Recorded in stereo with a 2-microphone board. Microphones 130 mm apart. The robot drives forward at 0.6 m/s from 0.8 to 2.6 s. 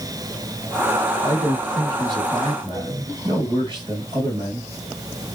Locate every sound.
1.2 s a man speaking: 35° right (ahead or behind), 5.5 m